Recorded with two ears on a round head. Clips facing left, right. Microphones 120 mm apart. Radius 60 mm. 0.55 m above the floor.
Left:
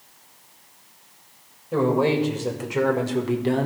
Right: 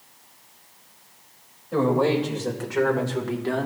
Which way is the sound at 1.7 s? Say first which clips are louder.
Even; 10° left (ahead or behind).